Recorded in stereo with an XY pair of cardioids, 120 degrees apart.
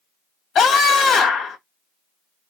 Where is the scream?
55° left, 1.6 m.